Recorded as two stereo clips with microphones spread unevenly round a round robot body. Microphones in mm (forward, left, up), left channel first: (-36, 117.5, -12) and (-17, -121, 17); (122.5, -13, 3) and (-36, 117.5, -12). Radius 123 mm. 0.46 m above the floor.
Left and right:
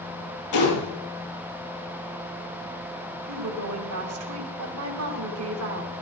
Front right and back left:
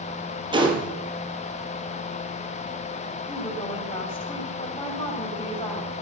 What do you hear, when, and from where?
0.5 s a gunshot: 75° left, 4.5 m
3.3 s a woman speaking: 110° right, 2.5 m